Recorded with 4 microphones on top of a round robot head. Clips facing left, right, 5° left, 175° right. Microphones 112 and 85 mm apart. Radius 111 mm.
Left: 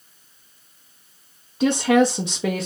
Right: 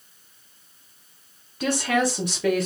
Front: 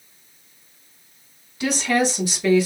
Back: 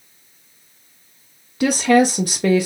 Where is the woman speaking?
165° left, 0.7 m.